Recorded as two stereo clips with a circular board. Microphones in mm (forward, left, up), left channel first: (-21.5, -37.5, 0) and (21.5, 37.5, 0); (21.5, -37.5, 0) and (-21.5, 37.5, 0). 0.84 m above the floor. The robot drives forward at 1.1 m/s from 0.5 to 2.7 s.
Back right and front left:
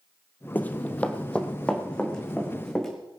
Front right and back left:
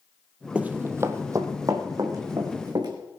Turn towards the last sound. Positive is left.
turn(degrees=155)